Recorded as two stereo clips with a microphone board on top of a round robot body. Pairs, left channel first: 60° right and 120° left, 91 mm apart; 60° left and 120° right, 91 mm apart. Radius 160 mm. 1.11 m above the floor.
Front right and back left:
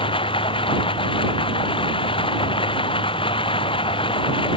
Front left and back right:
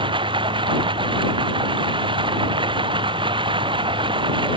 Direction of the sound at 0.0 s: 90° right.